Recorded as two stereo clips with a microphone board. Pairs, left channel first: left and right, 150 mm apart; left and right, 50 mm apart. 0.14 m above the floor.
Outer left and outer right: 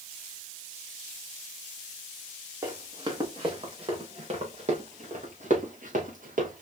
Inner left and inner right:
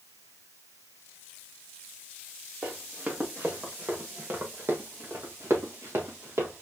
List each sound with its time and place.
2.6 s running footsteps: 25° right (ahead or behind), 3 m; by 6.6 s 70° right (ahead or behind), 3 m